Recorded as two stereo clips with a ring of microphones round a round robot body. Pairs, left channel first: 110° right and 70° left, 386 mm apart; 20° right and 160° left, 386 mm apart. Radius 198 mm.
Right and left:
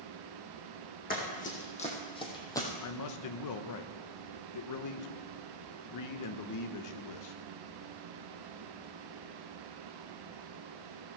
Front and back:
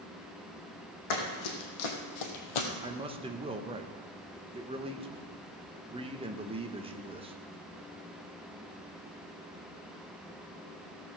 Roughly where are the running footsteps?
Ahead right.